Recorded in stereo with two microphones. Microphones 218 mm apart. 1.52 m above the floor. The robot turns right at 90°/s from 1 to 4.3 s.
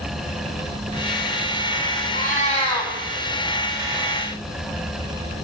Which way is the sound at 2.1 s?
95° left.